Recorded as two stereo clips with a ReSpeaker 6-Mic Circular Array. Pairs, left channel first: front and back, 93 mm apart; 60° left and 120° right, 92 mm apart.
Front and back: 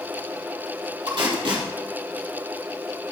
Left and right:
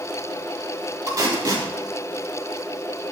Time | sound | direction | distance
1.1 | tape being pulled | 165° right | 3.5 m